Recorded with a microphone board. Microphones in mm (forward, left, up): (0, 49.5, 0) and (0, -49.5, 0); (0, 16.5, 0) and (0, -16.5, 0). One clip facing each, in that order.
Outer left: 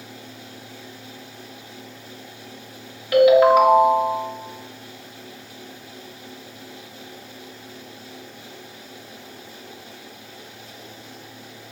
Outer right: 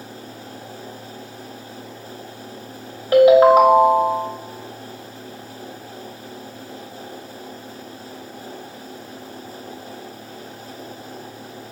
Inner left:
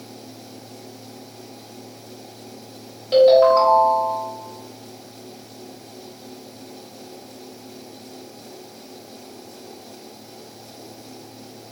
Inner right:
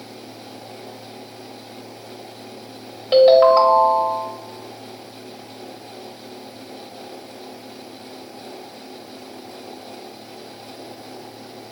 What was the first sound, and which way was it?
A ringtone, 30° right (ahead or behind).